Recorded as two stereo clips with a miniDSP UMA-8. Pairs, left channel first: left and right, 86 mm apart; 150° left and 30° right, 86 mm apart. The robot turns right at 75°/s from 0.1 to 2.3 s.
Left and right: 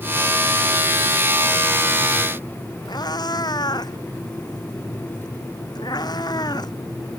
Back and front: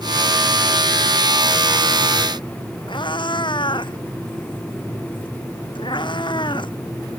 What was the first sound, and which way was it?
A cat meowing, 130° left.